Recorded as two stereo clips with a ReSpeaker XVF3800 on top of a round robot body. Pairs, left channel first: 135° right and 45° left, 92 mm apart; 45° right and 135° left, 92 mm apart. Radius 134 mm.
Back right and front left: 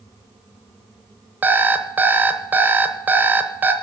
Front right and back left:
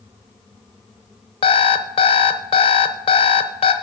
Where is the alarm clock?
25° right, 0.9 m.